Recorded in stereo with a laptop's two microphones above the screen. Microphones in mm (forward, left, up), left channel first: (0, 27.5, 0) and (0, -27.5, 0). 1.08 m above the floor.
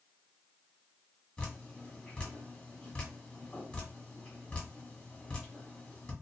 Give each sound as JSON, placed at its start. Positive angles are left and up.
{"t": 1.4, "sound": "dripping", "side_deg": 20, "distance_m": 1.5}